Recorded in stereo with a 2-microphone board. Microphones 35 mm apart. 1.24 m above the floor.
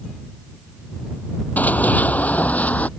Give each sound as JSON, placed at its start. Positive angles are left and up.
{"t": 1.6, "sound": "running footsteps", "side_deg": 60}